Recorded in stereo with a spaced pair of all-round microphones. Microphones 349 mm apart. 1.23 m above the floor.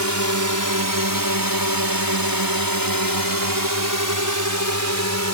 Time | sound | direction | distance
0.0 | a drone | 50° right (ahead or behind) | ?